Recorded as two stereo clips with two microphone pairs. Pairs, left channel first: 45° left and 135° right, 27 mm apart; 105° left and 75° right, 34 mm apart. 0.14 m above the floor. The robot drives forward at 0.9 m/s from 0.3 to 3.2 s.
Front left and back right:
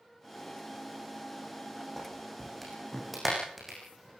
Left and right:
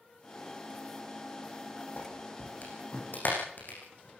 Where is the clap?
130° left, 8.5 m; by 4.2 s 135° left, 9.5 m.